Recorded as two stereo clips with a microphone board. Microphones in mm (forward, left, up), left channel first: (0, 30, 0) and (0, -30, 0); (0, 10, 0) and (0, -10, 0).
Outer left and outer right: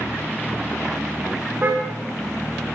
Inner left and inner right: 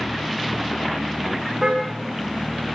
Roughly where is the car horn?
Right.